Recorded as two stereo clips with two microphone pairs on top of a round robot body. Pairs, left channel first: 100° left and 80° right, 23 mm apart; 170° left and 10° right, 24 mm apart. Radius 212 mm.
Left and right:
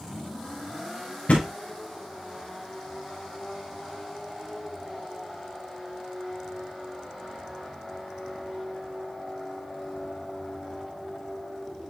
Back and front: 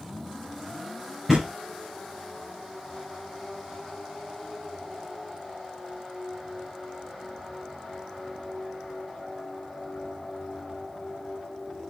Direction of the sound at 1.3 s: 75° left.